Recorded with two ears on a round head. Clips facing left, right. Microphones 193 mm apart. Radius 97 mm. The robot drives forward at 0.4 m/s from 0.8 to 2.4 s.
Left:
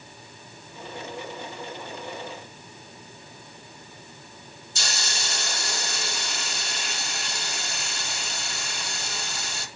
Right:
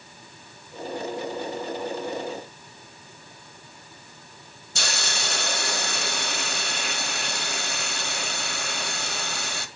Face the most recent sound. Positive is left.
turn(degrees=-50)  # may be behind; listen again after turning